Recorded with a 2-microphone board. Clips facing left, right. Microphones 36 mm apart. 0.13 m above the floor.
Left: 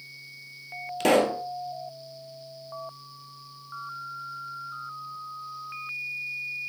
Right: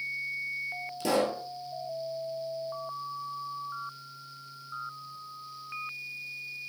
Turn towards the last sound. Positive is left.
turn(degrees=65)  # may be behind; listen again after turning